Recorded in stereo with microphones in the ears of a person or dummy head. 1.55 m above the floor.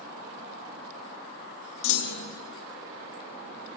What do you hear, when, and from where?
1.8 s a clunk: 70° left (ahead or behind), 1.2 m